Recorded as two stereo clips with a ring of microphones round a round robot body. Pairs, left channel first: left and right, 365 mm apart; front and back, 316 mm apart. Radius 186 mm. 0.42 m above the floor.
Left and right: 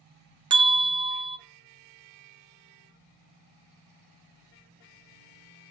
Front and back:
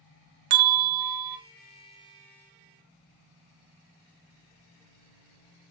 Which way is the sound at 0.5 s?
165° right.